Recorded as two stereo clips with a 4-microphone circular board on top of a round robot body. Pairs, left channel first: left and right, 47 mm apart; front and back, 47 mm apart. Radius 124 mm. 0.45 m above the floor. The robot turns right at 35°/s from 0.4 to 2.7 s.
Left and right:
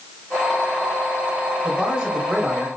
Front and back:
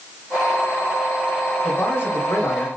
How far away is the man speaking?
About 3 m.